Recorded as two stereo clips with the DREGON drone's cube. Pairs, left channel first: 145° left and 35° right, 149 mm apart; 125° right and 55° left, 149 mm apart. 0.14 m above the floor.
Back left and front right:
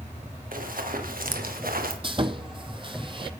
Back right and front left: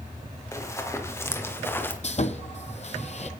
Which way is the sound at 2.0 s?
85° right.